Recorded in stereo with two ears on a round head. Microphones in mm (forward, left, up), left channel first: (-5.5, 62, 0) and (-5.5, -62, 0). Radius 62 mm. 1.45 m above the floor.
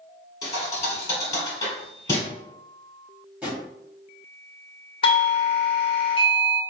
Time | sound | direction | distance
0.4 | a thud | 20° left (ahead or behind) | 1.6 m
3.4 | a drawer | 10° right (ahead or behind) | 1.2 m
5.0 | a doorbell | 40° left (ahead or behind) | 0.6 m